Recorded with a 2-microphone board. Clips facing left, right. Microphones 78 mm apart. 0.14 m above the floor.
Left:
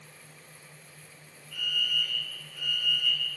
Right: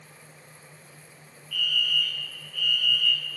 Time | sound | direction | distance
1.5 | a fire alarm | 20° left (ahead or behind) | 3.5 m